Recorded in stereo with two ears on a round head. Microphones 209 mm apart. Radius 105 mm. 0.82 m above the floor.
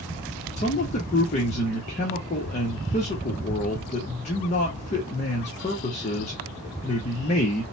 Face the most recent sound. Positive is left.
turn(degrees=30)  # may be behind; listen again after turning